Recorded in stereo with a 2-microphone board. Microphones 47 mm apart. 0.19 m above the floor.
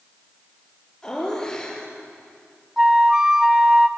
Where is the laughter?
20° left (ahead or behind), 4 m.